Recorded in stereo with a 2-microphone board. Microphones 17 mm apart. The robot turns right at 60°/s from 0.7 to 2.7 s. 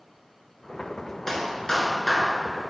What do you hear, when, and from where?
1.3 s a clap: 30° left, 1.2 m; by 2.3 s 90° left, 1.2 m